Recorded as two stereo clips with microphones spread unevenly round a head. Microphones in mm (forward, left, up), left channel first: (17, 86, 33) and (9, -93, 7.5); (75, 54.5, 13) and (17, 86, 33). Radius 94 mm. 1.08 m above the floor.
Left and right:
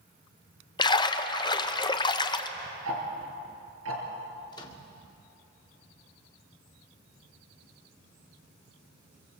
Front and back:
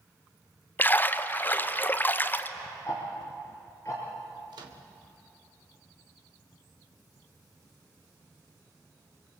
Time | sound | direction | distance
0.8 | a splash | 20° left | 1.0 m
2.9 | ticking | 110° right | 4 m
4.5 | a microwave | 155° left | 1.8 m